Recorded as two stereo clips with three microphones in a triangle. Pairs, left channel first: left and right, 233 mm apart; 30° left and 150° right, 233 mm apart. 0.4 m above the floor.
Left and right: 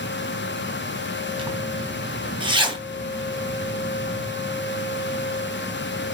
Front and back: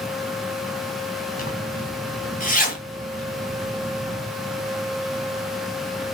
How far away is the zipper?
About 3.5 m.